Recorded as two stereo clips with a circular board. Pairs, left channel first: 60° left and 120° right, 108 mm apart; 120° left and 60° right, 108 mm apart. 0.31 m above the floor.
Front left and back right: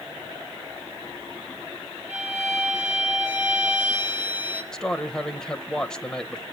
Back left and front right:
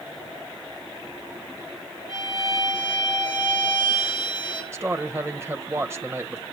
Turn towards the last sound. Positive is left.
turn(degrees=-20)